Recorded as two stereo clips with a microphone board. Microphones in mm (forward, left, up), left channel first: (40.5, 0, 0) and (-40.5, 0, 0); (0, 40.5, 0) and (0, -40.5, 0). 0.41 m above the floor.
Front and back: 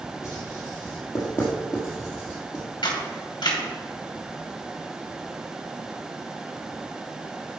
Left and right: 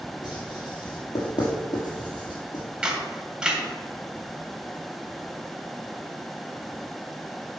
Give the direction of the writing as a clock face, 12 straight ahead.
10 o'clock.